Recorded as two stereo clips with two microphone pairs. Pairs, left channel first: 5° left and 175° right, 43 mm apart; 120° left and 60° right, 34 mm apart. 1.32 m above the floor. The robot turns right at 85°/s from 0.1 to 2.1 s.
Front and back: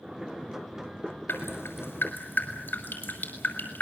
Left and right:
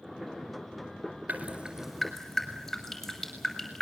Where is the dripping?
30° right, 6 m; by 3.8 s 40° left, 6 m.